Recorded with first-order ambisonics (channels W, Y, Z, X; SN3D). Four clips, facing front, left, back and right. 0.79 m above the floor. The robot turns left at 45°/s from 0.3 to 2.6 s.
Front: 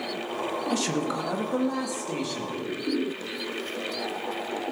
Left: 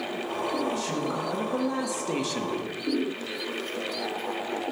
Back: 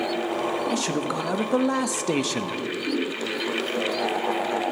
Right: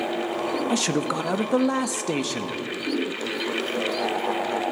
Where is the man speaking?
90° right, 1.0 m; by 2.6 s 175° right, 1.0 m.